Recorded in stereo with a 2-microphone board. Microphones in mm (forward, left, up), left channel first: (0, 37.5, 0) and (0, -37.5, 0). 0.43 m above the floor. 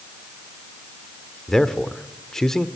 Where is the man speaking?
5° left (ahead or behind), 1.0 m.